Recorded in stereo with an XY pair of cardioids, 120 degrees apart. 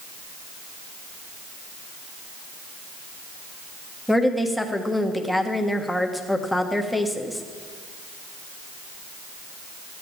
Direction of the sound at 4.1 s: 5° left.